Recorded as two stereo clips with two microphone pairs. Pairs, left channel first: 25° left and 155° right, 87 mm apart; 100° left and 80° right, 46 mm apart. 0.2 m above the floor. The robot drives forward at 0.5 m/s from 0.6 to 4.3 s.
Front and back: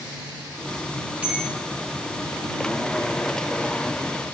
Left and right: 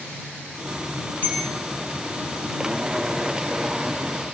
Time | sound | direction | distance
1.2 | a bell | 135° left | 2 m